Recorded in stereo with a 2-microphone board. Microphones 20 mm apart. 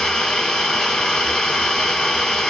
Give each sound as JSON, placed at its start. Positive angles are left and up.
{"t": 0.0, "sound": "an engine running", "side_deg": 45, "distance_m": 1.2}